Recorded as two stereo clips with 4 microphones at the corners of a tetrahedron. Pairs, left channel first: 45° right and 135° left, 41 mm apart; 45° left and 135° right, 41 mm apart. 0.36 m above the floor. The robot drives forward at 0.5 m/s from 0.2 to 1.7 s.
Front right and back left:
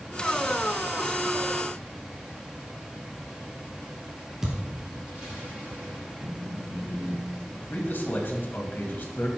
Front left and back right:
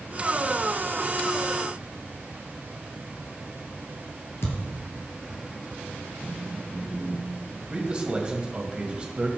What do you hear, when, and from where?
4.4 s a thud: 55° left, 2.5 m
6.2 s a phone buzzing: 105° left, 2.5 m
7.7 s a man speaking: 75° right, 2 m